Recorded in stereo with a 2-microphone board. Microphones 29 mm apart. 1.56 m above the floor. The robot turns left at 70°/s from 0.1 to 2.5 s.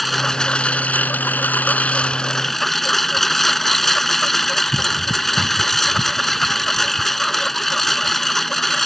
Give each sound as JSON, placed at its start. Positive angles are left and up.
{"t": 0.0, "sound": "a lawn mower", "azimuth_deg": 180}